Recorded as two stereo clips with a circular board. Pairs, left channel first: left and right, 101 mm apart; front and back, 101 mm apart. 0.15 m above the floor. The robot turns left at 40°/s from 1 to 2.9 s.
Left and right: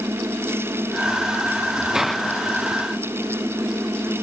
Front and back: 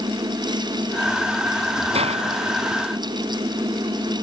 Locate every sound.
1.9 s a hiss: 175° right; by 4.2 s 150° left